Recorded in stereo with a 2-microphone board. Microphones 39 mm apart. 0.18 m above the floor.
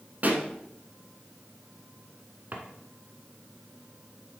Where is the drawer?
45° right (ahead or behind), 1.3 m.